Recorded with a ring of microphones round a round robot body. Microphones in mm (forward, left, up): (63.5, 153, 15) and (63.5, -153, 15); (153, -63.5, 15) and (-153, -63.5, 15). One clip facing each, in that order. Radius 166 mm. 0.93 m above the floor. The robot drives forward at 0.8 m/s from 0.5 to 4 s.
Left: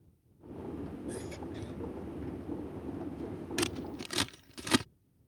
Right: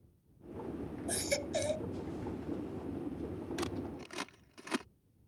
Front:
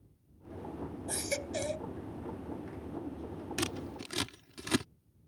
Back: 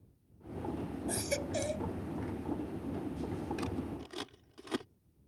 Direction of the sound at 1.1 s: 85° right.